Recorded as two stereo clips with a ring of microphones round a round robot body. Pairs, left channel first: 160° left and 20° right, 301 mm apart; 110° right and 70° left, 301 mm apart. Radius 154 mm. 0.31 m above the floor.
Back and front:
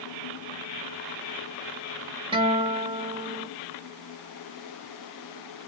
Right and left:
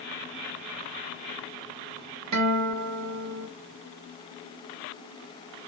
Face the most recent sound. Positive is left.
turn(degrees=50)